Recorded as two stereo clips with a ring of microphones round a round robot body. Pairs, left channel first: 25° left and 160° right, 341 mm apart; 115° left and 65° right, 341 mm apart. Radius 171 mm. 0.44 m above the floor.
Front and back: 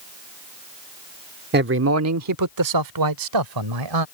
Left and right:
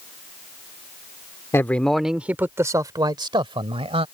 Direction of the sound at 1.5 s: 170° right.